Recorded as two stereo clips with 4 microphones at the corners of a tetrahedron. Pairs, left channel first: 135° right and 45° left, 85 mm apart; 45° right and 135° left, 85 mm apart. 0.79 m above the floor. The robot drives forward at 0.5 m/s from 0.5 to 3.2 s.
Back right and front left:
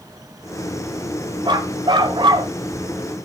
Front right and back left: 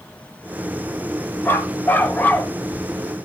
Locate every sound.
1.4 s a dog barking: 20° left, 2.5 m; by 2.5 s 25° left, 1.8 m